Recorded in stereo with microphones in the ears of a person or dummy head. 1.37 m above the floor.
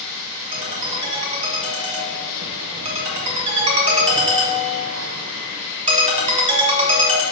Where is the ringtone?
30° right (ahead or behind), 0.5 m.